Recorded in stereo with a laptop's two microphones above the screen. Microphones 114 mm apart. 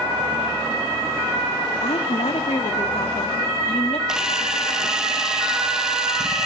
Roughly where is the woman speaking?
Left.